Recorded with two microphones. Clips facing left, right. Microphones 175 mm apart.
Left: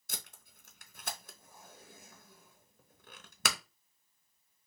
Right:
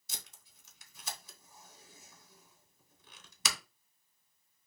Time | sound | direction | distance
0.1 | tape being pulled | 60° left (ahead or behind) | 0.8 m